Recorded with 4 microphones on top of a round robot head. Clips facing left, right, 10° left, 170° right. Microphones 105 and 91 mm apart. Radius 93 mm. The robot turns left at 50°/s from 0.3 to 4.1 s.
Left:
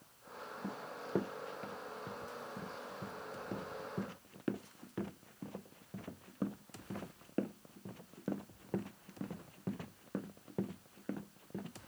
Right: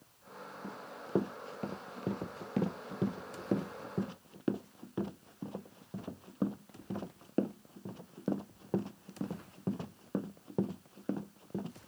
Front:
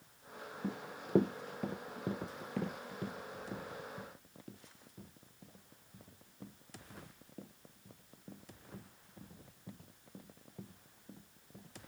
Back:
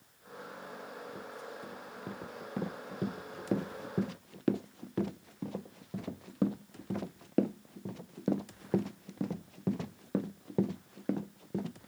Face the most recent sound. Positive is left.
turn(degrees=-160)